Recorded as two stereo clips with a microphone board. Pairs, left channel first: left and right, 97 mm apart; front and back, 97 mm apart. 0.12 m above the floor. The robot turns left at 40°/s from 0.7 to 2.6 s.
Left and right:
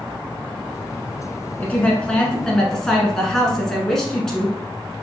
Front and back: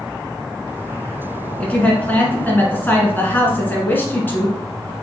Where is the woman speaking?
55° left, 1.3 m; by 4.9 s 15° left, 1.3 m.